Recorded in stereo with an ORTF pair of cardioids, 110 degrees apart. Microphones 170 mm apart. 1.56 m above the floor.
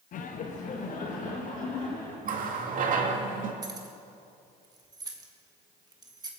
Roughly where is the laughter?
Ahead left.